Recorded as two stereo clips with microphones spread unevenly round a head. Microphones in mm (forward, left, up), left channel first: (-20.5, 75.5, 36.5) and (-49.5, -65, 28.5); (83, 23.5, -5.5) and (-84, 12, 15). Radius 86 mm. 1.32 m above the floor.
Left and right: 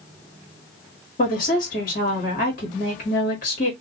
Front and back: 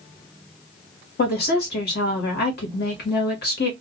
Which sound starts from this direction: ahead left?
A woman speaking, at 1.2 s.